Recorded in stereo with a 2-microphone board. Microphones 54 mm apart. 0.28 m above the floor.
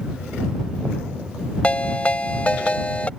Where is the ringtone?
25° left (ahead or behind).